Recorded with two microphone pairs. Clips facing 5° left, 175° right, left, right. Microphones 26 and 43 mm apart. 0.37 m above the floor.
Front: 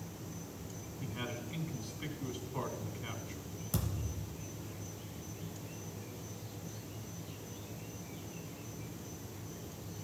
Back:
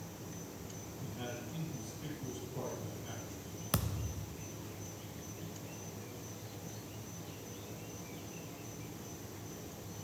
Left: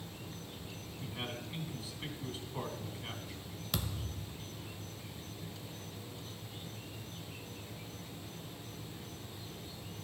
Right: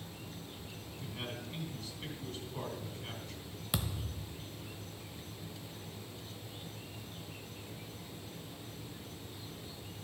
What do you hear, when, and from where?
0.0 s an insect: 125° left, 4.5 m
1.0 s a man speaking: 15° left, 3 m
3.7 s a thud: 165° right, 0.6 m